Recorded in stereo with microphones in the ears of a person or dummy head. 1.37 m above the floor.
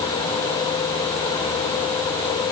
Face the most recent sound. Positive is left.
No sound to turn to.